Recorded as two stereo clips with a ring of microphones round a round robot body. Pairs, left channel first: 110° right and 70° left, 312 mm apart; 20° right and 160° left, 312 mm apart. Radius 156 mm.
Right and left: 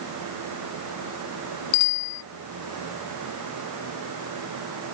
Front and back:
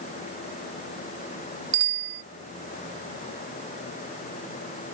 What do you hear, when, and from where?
1.7 s a bicycle bell: 145° right